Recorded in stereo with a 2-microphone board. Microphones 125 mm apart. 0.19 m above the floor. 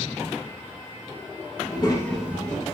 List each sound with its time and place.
1.6 s a child speaking: 50° left (ahead or behind), 0.9 m; by 2.6 s 40° right (ahead or behind), 0.8 m